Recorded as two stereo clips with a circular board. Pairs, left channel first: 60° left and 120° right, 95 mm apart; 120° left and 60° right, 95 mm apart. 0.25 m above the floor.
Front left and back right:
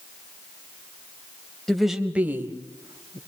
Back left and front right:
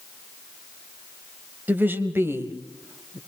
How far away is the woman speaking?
About 1.4 m.